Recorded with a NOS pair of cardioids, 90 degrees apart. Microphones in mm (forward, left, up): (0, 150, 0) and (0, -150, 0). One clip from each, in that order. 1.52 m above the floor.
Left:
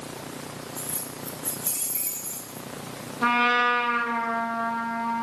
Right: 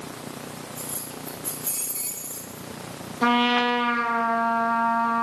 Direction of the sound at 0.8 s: 25° left.